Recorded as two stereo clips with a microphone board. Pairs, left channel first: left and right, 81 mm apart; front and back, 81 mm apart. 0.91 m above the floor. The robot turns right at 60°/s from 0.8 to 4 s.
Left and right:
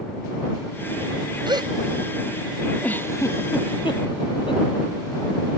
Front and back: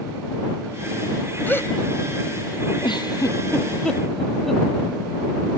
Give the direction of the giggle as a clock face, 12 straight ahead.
11 o'clock.